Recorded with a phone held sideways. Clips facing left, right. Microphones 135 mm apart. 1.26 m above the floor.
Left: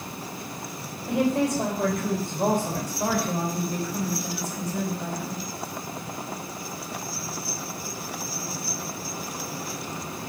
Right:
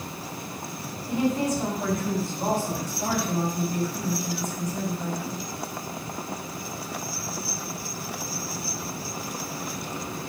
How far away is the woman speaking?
About 5 m.